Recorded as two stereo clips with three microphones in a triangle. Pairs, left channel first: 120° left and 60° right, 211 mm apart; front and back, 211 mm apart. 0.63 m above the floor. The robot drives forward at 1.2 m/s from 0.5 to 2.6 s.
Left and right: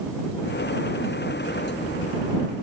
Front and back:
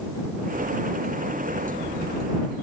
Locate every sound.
Only background noise.